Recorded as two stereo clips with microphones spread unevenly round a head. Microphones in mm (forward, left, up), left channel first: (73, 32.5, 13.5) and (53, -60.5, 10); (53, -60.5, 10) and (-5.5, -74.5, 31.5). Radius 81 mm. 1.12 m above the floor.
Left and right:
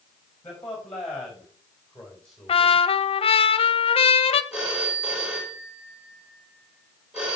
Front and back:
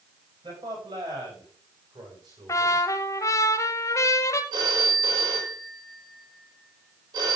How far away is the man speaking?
About 6 m.